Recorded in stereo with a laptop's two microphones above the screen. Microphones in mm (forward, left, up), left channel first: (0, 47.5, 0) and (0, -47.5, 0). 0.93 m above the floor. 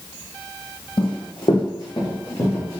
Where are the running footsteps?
60° left (ahead or behind), 1.8 m; by 2.8 s 25° left (ahead or behind), 3 m.